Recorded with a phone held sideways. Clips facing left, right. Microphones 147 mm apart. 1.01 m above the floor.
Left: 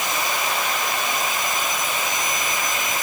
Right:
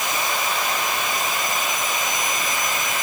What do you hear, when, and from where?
Only background noise.